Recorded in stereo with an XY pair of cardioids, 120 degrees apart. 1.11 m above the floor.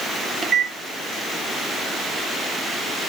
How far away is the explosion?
No explosion in this recording.